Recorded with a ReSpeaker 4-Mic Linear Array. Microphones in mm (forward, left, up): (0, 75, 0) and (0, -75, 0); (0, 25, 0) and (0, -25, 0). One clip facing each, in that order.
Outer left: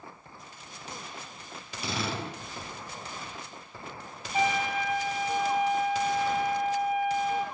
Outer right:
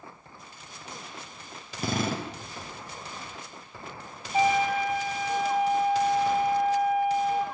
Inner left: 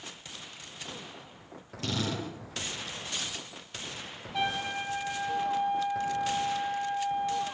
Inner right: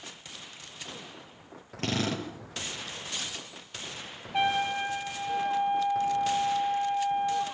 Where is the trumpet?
30° right (ahead or behind), 6 m.